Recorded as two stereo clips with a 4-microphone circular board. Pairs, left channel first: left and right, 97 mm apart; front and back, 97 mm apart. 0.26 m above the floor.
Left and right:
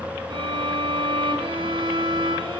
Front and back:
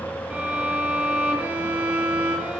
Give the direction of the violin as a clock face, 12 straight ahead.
3 o'clock.